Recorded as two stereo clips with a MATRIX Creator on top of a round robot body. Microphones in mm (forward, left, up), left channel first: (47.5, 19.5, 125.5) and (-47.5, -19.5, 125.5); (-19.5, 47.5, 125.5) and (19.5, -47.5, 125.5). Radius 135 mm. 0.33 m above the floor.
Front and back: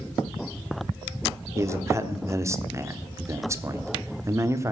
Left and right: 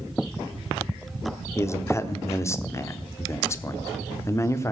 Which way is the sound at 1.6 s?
160° left.